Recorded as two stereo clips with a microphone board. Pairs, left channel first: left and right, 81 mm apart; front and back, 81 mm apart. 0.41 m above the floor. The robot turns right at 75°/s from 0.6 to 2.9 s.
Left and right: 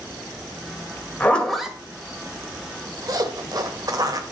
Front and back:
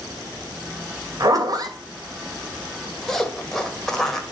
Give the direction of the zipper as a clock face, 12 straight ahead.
7 o'clock.